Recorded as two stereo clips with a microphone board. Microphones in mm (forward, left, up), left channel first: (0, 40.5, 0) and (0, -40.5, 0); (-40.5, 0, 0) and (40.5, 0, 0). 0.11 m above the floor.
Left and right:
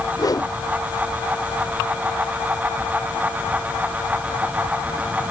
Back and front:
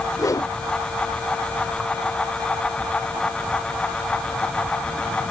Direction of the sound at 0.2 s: 130° left.